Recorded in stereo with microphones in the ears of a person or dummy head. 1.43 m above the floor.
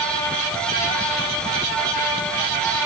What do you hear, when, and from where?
Only background noise.